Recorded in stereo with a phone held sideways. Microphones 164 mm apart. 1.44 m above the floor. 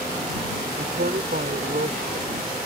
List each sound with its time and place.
0.8 s a man speaking: 70° right (ahead or behind)